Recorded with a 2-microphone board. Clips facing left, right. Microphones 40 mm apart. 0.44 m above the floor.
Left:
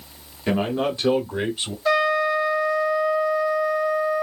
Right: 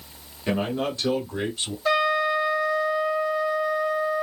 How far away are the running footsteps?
I don't hear running footsteps.